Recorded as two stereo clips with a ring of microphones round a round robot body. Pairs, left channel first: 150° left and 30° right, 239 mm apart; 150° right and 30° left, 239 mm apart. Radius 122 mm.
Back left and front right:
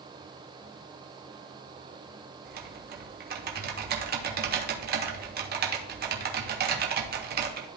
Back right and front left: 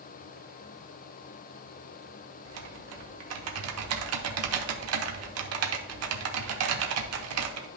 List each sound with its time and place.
2.5 s typing on a keyboard: 20° left, 0.9 m